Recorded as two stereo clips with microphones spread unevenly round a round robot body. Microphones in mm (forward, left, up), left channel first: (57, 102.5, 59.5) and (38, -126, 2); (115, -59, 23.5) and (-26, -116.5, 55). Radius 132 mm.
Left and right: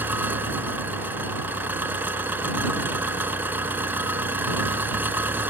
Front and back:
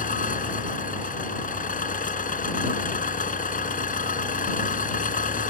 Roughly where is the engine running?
Ahead.